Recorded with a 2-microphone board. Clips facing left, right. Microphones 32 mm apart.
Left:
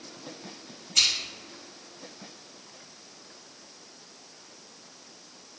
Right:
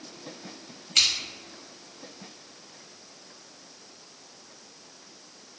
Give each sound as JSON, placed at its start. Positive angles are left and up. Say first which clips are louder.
{"t": 0.9, "sound": "scissors", "louder": "right 1 dB", "side_deg": -55, "distance_m": 0.9}